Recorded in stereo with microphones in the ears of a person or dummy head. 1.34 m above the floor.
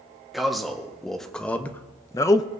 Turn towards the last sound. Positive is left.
turn(degrees=25)  # may be behind; listen again after turning